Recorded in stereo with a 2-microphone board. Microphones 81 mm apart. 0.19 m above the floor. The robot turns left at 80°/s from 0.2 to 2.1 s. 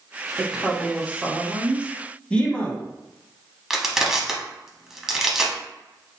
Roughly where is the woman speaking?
Centre.